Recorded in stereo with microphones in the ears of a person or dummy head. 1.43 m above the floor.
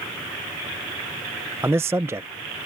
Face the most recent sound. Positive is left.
turn(degrees=-10)  # may be behind; listen again after turning